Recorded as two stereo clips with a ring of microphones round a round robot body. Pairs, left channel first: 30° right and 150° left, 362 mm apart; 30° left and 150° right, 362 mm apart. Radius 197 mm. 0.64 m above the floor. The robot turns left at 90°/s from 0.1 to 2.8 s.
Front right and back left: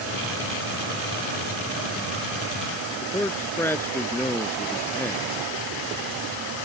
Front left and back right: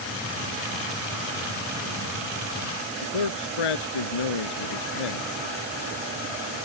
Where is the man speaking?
55° left.